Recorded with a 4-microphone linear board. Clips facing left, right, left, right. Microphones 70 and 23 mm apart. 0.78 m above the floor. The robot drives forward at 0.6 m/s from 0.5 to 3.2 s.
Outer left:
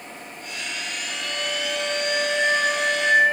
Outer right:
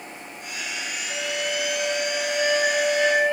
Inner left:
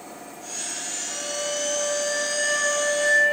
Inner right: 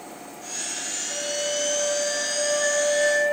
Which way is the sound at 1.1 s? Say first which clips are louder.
Outer right 3 dB, inner right 2 dB; 85° left.